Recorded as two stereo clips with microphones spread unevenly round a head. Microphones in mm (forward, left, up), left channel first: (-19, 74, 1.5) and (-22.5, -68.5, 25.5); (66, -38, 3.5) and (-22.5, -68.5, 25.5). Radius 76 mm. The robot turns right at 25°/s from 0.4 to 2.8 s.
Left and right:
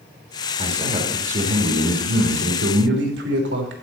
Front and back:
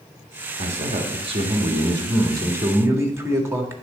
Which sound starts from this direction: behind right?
A man speaking, at 0.6 s.